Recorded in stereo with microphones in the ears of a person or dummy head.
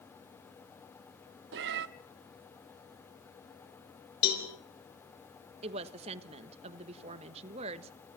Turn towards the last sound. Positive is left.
turn(degrees=-30)  # may be behind; listen again after turning